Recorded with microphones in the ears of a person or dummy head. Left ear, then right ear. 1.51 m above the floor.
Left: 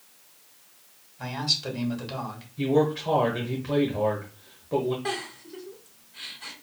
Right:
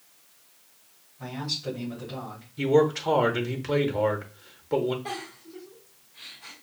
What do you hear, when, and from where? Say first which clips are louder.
1.2 s a man speaking: left 5 dB; 80° left, 2 m
2.6 s a man speaking: right 2 dB; 75° right (ahead or behind), 0.8 m
5.0 s a giggle: left 4 dB; 50° left (ahead or behind), 1.7 m